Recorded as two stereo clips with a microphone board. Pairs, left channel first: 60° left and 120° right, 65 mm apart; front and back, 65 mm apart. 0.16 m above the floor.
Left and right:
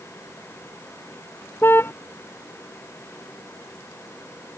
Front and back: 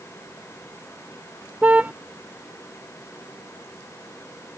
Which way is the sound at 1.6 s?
115° left.